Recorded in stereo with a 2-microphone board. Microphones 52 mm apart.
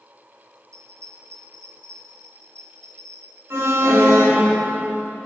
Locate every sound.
0.7 s a bell: 85° right, 5.5 m
3.5 s an alarm: 55° right (ahead or behind), 10 m